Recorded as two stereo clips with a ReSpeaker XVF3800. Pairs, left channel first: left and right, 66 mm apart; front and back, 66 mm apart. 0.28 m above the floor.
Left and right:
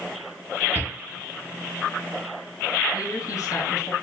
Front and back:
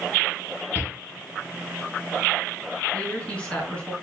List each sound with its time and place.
0.8 s a shout: 40° left, 3.5 m
2.9 s a woman speaking: 70° left, 4 m